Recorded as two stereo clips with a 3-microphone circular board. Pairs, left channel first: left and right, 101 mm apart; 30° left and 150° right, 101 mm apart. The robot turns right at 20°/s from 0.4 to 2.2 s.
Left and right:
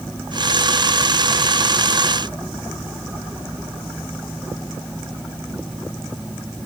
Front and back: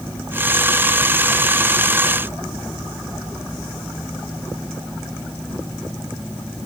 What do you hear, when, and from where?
Only background noise.